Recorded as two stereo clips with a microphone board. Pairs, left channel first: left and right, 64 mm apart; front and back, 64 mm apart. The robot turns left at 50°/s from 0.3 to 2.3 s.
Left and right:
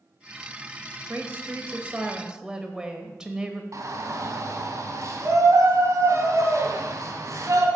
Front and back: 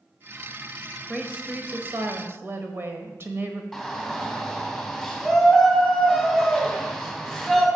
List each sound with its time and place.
1.1 s a woman speaking: 100° right, 1.0 m; by 3.6 s 165° right, 1.0 m
3.7 s a shout: 95° right, 2.5 m